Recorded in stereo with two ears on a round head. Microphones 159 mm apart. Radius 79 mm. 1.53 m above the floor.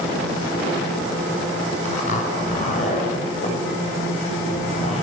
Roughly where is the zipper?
Left.